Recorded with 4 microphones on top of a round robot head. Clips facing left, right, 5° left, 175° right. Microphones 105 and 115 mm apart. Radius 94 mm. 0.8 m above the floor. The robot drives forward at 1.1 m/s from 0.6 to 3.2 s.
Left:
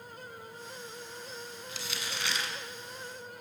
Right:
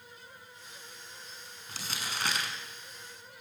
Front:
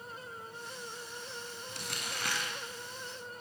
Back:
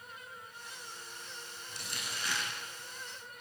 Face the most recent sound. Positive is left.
turn(degrees=-50)